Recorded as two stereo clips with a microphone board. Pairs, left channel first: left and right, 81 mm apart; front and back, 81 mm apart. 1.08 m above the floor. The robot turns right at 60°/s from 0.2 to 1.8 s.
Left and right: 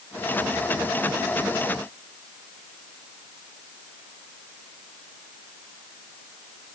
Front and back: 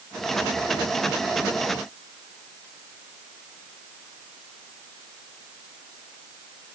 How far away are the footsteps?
I don't hear footsteps.